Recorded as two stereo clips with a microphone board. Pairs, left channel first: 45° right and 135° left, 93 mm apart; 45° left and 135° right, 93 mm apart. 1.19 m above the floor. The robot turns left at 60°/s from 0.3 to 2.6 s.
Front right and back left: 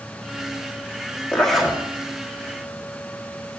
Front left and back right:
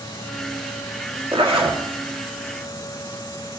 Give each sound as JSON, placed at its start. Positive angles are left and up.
{"t": 1.3, "sound": "a zipper", "azimuth_deg": -120, "distance_m": 1.4}